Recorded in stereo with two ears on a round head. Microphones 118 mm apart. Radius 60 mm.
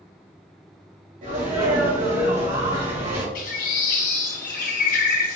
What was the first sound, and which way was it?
A sneeze, 65° right (ahead or behind).